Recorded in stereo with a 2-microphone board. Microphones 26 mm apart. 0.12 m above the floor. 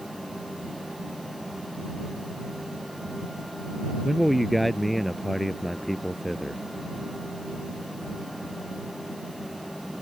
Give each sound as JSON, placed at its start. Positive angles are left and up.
{"t": 4.0, "sound": "a man speaking", "side_deg": 0}